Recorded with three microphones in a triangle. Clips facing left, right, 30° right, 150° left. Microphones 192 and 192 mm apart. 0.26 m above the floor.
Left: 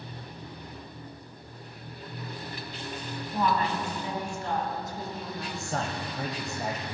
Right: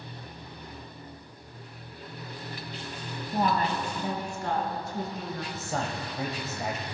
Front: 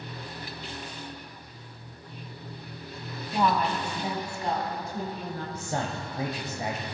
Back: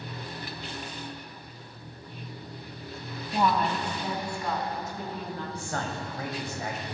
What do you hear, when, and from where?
3.3 s a woman speaking: 130° right, 1.4 m; by 5.5 s 75° right, 2.5 m
5.5 s a man speaking: 5° right, 0.9 m